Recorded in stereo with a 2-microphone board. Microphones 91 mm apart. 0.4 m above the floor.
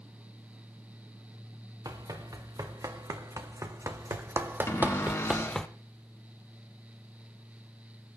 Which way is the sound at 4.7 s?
35° left (ahead or behind).